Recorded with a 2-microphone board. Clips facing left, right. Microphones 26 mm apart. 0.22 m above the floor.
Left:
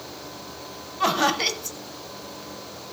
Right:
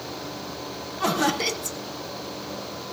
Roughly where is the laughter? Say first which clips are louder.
Left 2 dB; left.